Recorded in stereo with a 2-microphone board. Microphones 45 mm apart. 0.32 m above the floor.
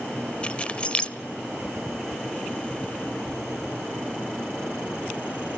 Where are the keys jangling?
30° left (ahead or behind), 0.9 m.